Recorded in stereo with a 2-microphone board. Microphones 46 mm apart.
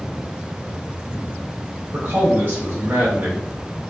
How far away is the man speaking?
About 0.7 m.